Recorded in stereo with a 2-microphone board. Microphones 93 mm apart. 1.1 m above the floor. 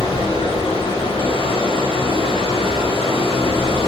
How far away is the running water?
About 1.8 m.